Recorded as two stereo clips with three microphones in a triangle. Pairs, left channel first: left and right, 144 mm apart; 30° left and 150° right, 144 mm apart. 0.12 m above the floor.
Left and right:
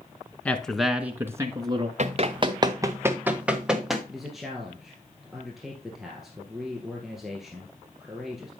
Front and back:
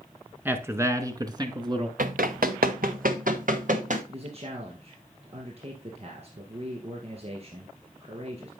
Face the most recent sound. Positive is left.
turn(degrees=180)